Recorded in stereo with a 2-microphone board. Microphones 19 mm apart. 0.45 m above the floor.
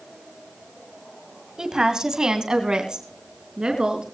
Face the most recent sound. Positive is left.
turn(degrees=-50)  # may be behind; listen again after turning